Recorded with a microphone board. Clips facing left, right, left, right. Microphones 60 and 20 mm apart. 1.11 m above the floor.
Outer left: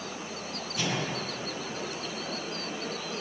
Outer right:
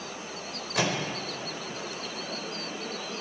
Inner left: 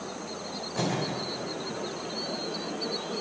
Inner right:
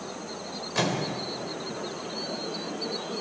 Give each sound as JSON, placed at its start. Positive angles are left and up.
{"t": 0.8, "sound": "a microwave", "side_deg": -80, "distance_m": 3.5}